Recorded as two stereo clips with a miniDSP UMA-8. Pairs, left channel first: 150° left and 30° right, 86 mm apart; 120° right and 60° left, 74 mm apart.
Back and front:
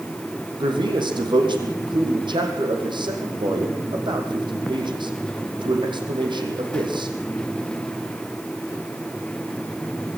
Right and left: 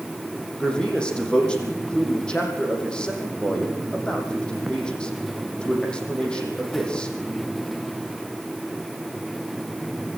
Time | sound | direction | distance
0.6 | a man speaking | 45° right | 6 m